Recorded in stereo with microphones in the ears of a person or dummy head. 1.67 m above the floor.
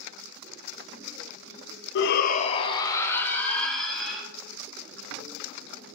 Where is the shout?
65° left (ahead or behind), 0.7 m; by 4.2 s centre (ahead or behind), 2.5 m.